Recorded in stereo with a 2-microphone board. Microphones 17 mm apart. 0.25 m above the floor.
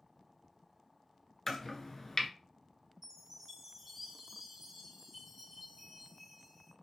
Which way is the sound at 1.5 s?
25° left (ahead or behind).